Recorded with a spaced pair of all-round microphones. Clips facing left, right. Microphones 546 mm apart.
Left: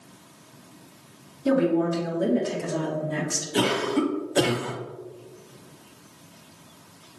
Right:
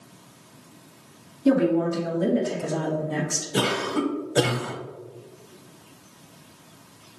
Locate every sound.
1.4 s a woman speaking: centre (ahead or behind), 2 m; by 3.5 s 15° right (ahead or behind), 0.8 m
3.5 s a cough: 55° right (ahead or behind), 0.9 m